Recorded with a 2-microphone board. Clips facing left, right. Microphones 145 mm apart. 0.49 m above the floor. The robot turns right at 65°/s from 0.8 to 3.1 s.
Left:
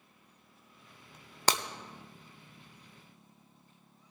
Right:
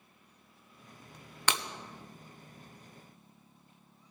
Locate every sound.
1.5 s breaking glass: 35° left (ahead or behind), 0.7 m; by 1.6 s 45° left (ahead or behind), 0.7 m